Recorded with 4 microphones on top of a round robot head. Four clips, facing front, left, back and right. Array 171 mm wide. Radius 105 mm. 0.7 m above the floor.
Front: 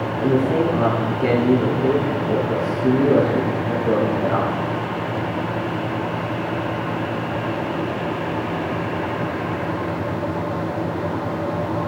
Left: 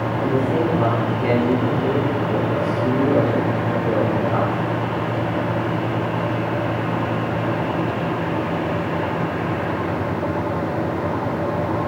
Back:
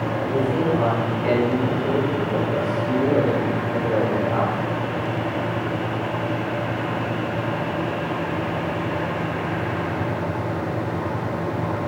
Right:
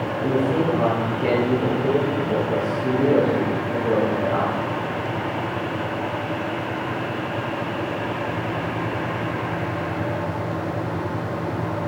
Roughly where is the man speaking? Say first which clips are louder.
Even, front 5 dB; ahead.